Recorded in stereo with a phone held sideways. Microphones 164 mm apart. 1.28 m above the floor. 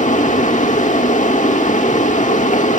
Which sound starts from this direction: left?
A fan, at 0.0 s.